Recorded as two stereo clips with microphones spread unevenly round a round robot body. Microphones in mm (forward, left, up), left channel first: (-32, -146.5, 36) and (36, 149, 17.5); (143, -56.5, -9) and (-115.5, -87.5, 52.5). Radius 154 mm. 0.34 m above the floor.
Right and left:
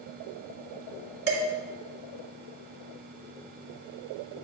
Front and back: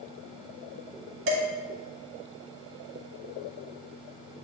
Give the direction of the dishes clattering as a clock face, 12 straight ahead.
8 o'clock.